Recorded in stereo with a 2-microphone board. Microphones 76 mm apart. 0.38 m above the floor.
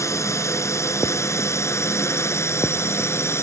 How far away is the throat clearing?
No throat clearing in this recording.